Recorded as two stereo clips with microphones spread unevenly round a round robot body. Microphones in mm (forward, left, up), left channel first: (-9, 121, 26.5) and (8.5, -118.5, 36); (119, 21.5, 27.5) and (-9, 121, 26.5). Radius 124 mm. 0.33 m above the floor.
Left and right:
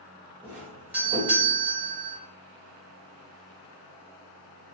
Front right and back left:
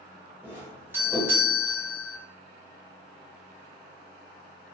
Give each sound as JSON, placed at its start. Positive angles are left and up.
{"t": 0.4, "sound": "a doorbell", "azimuth_deg": -165, "distance_m": 1.3}